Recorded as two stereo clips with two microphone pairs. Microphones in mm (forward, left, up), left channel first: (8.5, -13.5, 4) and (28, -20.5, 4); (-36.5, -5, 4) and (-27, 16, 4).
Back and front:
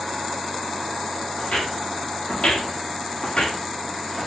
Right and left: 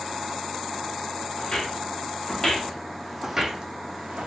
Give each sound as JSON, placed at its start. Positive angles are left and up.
{"t": 1.4, "sound": "footsteps", "azimuth_deg": -165, "distance_m": 1.4}